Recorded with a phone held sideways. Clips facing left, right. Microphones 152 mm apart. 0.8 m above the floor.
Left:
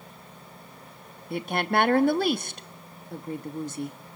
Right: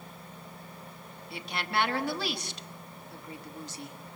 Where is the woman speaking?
55° left (ahead or behind), 1.1 m.